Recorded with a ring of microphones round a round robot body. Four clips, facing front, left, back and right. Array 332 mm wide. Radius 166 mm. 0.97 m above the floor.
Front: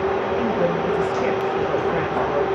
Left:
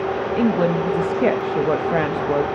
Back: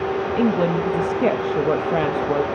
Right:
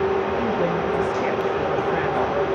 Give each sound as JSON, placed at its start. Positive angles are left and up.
{"t": 0.4, "sound": "a woman speaking", "azimuth_deg": 130, "distance_m": 1.5}